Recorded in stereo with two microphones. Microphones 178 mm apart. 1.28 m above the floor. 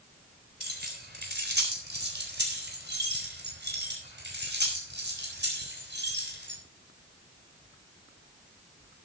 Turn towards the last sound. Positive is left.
turn(degrees=-80)